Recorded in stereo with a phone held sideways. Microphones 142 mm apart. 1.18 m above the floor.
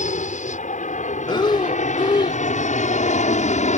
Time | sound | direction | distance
0.0 | an aircraft | 60° left (ahead or behind) | ?
1.3 | breathing | 35° left (ahead or behind) | ?